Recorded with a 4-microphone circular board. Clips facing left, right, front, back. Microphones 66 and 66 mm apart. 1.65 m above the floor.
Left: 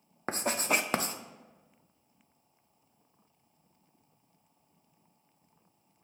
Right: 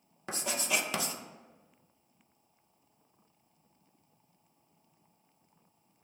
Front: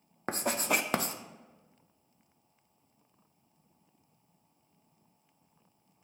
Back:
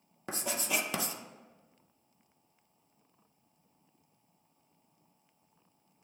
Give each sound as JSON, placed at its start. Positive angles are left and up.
{"t": 0.3, "sound": "writing", "azimuth_deg": 40, "distance_m": 0.5}